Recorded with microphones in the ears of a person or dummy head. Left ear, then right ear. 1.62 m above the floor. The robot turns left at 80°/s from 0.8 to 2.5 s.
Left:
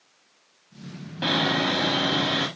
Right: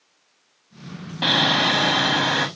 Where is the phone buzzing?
No phone buzzing in this recording.